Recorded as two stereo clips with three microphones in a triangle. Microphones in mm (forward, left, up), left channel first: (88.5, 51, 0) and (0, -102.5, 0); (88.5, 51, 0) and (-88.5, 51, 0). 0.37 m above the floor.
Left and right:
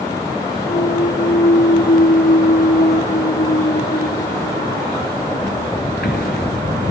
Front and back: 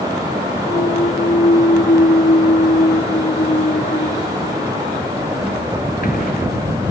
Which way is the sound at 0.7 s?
35° left.